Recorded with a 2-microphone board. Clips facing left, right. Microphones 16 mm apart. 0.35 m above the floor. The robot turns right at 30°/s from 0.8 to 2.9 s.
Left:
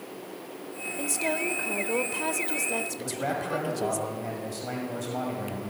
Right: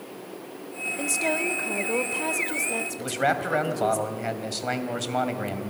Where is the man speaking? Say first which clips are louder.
Right 6 dB; 50° right (ahead or behind), 2.5 m.